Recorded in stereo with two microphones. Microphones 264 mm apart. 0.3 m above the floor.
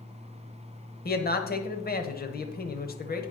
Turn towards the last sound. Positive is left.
turn(degrees=35)  # may be behind; listen again after turning